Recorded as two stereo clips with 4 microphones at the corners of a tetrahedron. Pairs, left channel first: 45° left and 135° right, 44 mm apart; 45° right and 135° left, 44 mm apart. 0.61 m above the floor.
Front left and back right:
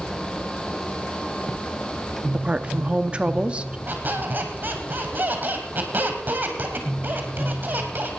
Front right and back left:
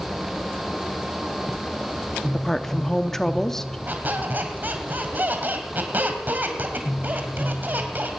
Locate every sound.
2.3 s a woman speaking: 115° right, 0.7 m
3.9 s a squeak: 175° left, 2 m